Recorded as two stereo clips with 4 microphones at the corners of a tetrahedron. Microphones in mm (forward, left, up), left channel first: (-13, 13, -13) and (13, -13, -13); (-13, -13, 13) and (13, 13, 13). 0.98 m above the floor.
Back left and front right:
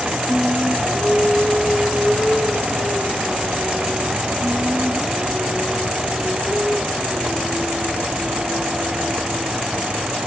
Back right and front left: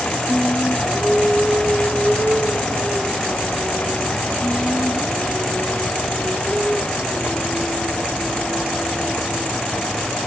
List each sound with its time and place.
0.3 s singing: 110° left, 7 m